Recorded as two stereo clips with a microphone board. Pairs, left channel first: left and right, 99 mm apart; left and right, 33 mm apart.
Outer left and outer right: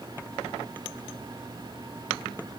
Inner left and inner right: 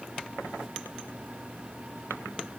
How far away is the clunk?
No clunk in this recording.